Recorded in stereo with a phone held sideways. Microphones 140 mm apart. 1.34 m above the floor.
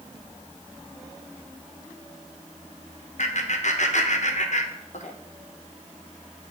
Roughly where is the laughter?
Left.